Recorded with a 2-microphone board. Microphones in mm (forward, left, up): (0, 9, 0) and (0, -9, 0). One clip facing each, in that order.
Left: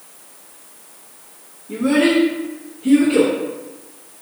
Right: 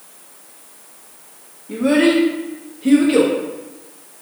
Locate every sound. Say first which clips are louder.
1.7 s a child speaking: right 1 dB; 35° right (ahead or behind), 0.9 m; by 3.3 s 75° right (ahead or behind), 1.0 m